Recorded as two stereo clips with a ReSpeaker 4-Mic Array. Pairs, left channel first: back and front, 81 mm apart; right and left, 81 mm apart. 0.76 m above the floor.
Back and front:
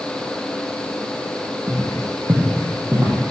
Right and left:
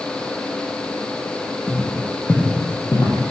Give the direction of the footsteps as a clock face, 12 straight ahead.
12 o'clock.